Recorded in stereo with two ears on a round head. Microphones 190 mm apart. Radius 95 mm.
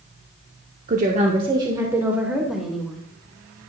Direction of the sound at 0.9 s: 40° right (ahead or behind).